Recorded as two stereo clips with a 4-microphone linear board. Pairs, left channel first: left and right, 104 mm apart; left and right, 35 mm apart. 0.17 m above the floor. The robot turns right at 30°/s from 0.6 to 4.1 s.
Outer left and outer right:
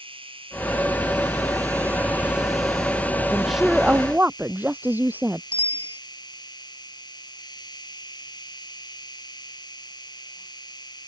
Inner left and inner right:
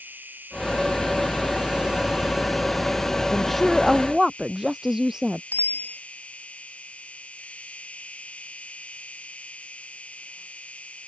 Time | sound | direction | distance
0.0 | an insect | 65° right | ?
3.3 | a woman speaking | 10° left (ahead or behind) | ?
5.5 | a bicycle bell | 65° left (ahead or behind) | ?